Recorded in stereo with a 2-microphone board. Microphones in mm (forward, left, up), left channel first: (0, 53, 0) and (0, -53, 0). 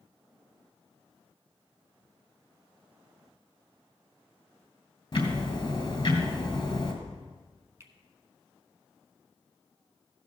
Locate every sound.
5.1 s ticking: 45° left (ahead or behind), 2.5 m
7.8 s a finger snap: 25° right (ahead or behind), 1.1 m